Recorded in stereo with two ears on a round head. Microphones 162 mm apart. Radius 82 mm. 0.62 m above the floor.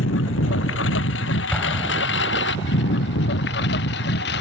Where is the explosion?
10° left (ahead or behind).